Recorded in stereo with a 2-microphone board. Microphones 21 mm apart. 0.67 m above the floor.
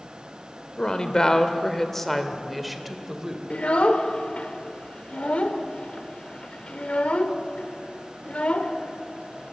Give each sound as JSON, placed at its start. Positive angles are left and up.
{"t": 0.8, "sound": "a woman speaking", "side_deg": 40, "distance_m": 1.9}
{"t": 3.5, "sound": "a child speaking", "side_deg": 65, "distance_m": 1.7}